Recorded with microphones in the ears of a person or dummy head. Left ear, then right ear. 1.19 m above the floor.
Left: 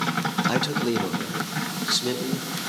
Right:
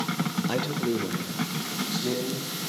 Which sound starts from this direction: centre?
A man speaking, at 0.5 s.